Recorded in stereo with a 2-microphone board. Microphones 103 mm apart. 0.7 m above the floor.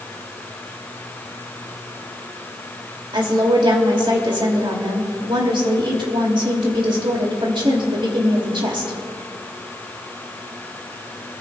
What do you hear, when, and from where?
3.1 s a woman speaking: 55° right (ahead or behind), 2.5 m